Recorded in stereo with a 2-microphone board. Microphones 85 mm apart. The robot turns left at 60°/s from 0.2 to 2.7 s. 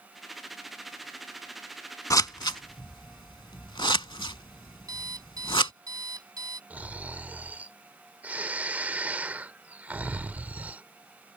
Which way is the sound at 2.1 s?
40° left (ahead or behind).